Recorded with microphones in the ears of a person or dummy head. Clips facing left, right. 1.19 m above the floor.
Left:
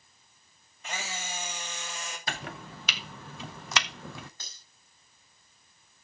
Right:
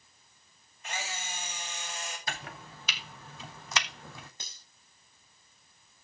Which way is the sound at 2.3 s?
55° left (ahead or behind).